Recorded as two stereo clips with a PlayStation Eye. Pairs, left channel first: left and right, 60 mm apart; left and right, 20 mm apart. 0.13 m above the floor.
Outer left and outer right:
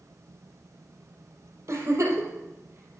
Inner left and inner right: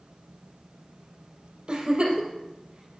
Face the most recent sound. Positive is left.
turn(degrees=-45)  # may be behind; listen again after turning